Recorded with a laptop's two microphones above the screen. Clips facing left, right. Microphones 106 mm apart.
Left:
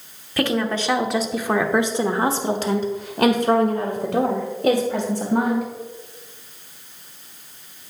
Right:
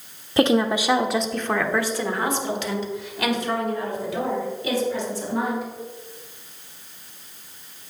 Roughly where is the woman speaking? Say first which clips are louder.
Right 3 dB; right.